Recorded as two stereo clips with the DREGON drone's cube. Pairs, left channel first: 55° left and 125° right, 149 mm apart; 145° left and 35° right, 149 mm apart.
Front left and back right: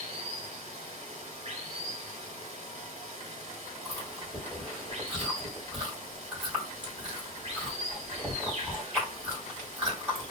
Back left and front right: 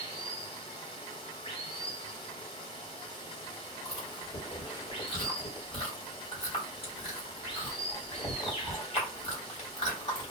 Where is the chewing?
160° left, 1.7 m.